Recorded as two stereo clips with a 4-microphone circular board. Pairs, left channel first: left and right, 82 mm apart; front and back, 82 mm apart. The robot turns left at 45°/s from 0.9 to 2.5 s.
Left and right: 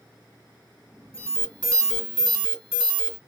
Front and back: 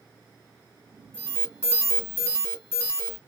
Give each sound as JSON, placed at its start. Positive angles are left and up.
{"t": 1.1, "sound": "an alarm", "azimuth_deg": 45, "distance_m": 2.5}